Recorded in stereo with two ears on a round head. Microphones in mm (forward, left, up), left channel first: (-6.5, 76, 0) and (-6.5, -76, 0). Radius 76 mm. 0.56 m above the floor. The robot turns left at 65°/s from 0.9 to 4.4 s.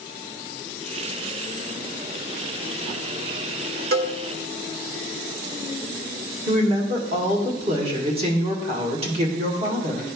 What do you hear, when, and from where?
3.9 s a cowbell: 60° right (ahead or behind), 0.9 m; by 4.2 s 75° right (ahead or behind), 0.9 m
6.5 s a woman speaking: 35° right (ahead or behind), 1.6 m